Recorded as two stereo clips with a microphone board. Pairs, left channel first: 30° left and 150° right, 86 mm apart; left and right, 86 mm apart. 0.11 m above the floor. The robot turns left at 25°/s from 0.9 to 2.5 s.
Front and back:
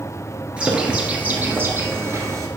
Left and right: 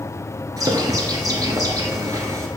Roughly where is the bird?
Right.